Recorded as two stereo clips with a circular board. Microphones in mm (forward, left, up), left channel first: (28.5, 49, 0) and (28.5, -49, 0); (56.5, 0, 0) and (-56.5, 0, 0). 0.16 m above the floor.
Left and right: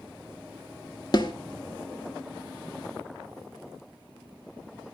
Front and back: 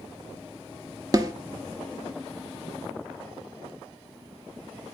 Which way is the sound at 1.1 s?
125° left.